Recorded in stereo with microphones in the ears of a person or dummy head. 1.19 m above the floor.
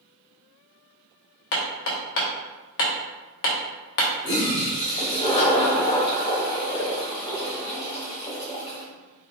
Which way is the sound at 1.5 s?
55° left (ahead or behind).